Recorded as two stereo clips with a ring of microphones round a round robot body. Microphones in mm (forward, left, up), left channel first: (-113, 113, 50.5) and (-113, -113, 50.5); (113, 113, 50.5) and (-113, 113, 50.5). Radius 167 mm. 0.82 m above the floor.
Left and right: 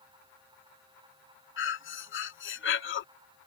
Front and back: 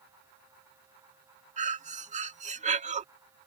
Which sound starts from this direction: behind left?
Breathing, at 1.6 s.